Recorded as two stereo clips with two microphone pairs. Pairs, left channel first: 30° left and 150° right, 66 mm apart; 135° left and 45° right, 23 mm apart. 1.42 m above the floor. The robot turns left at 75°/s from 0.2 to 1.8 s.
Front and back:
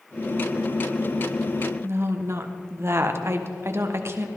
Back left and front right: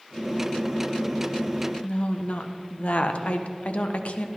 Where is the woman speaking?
160° left, 1.2 m.